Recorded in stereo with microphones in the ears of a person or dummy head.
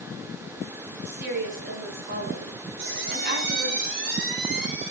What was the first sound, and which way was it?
A woman speaking, 55° right (ahead or behind).